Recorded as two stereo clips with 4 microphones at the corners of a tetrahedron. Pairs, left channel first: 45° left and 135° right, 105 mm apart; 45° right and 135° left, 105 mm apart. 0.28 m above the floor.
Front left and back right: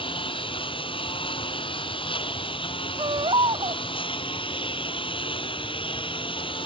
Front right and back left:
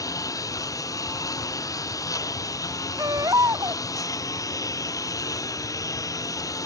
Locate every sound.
0.0 s a lawn mower: 10° left
3.0 s a baby crying: 170° right